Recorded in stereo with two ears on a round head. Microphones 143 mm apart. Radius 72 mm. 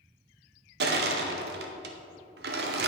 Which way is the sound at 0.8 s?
75° right (ahead or behind).